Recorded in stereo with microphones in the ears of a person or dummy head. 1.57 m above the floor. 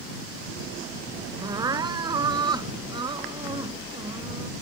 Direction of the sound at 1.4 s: 20° right (ahead or behind).